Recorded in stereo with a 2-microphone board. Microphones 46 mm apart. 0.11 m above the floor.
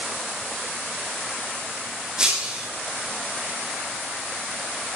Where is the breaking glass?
15° right (ahead or behind), 5 m.